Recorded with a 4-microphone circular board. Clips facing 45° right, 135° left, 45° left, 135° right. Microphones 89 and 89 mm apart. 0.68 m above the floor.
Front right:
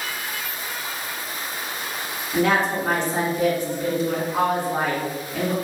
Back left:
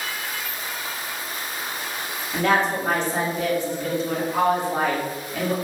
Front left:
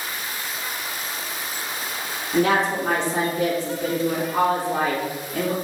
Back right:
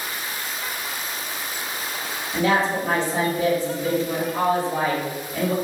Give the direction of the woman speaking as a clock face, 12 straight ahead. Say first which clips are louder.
Front right 1 dB, front left 1 dB; 11 o'clock.